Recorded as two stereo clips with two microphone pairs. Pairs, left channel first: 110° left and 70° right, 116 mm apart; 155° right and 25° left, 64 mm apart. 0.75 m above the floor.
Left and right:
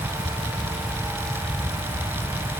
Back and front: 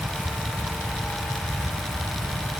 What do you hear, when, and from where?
Only background noise.